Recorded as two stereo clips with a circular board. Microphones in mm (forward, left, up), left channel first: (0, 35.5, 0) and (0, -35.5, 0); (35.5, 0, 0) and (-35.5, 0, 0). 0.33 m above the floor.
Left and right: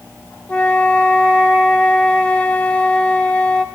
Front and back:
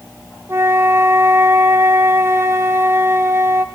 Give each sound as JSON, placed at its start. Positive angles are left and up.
{"t": 0.5, "sound": "a flute", "azimuth_deg": 155, "distance_m": 1.0}